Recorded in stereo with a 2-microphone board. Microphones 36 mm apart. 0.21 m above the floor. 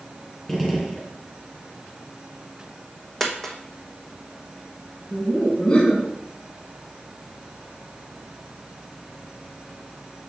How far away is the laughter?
About 1.5 m.